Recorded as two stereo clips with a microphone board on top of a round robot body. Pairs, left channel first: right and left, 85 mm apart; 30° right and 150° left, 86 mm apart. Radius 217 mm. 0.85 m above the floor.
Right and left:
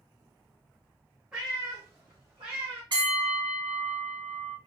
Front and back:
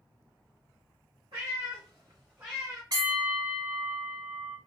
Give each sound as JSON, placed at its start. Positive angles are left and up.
{"t": 1.3, "sound": "a cat meowing", "azimuth_deg": 170, "distance_m": 0.5}
{"t": 2.9, "sound": "a bell", "azimuth_deg": 115, "distance_m": 1.9}